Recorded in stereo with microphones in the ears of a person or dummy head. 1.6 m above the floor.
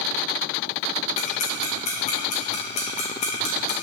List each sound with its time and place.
1.2 s ticking: 30° left (ahead or behind), 1.1 m